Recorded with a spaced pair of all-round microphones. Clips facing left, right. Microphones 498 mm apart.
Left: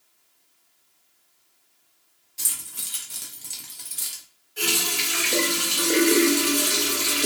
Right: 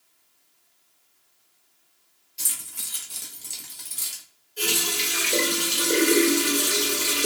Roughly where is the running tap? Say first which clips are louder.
Even; left.